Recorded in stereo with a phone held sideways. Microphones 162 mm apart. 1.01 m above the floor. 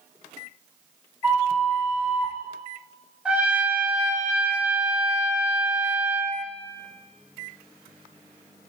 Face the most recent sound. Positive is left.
turn(degrees=-10)  # may be behind; listen again after turning